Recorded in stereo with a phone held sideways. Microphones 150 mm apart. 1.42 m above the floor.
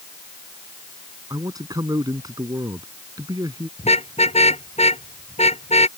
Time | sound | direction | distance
1.3 | a man speaking | 25° right (ahead or behind) | ?
3.8 | a car horn | 45° left (ahead or behind) | ?